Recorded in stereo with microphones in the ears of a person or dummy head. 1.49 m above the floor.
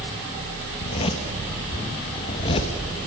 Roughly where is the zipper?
Left.